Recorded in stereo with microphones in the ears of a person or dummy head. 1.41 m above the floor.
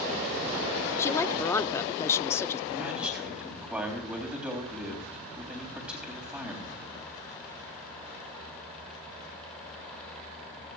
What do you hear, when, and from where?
1.0 s a woman speaking: 10° left (ahead or behind), 0.5 m
2.7 s a man speaking: 5° right (ahead or behind), 3.5 m